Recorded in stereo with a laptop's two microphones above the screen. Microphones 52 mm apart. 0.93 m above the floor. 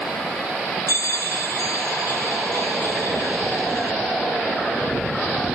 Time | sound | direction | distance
0.9 | a bell | 80° left | 0.9 m